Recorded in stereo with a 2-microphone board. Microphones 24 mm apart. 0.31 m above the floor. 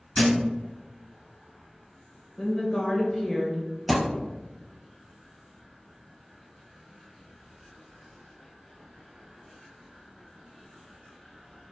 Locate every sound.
0.1 s a thud: 70° left (ahead or behind), 1.3 m
2.4 s a woman speaking: 15° left (ahead or behind), 0.9 m
3.9 s a thud: 5° right (ahead or behind), 1.4 m